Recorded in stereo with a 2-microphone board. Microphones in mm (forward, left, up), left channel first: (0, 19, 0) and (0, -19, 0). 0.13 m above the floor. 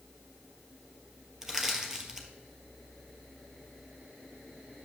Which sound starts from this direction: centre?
Crushing, at 1.4 s.